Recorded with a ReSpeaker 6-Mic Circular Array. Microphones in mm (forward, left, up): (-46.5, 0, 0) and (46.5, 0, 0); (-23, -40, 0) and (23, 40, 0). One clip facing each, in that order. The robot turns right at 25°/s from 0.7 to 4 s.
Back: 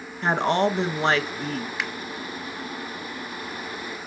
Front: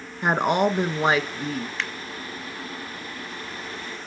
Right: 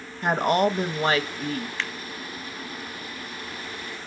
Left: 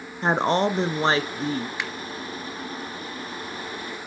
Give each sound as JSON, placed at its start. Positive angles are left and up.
{"t": 0.2, "sound": "a woman speaking", "azimuth_deg": 60, "distance_m": 1.1}
{"t": 1.8, "sound": "a finger snap", "azimuth_deg": 115, "distance_m": 1.1}